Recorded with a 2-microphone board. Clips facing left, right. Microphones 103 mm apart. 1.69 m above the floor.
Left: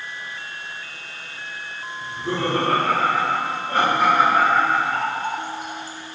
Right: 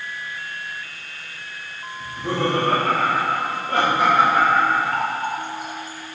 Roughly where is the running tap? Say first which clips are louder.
Right 1 dB; right.